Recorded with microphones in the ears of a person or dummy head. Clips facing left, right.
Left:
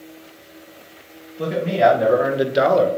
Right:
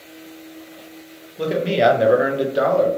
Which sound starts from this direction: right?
A man speaking, at 1.4 s.